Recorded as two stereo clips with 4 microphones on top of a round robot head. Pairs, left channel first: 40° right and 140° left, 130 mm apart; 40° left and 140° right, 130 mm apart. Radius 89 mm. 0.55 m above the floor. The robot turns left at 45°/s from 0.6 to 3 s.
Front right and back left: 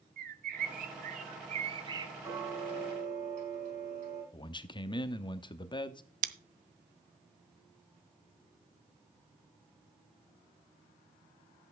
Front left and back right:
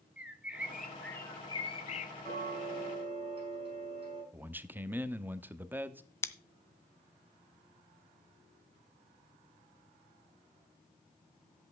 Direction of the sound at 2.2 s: 155° right.